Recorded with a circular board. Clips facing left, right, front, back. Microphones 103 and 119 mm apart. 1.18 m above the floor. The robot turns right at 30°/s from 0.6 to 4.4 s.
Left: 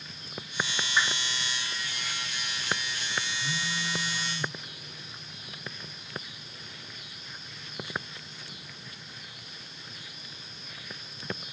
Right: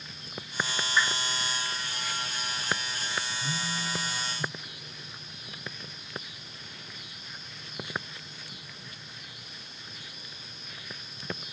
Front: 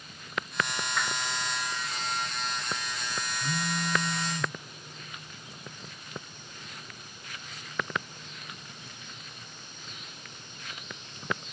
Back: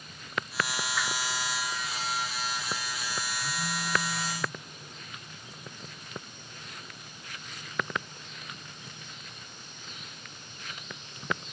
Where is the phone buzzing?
20° right, 0.7 m; by 4.5 s 10° left, 0.7 m.